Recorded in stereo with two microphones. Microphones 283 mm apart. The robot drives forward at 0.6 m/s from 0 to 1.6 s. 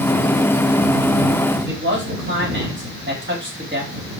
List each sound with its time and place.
1.7 s a man speaking: 40° right (ahead or behind), 3.5 m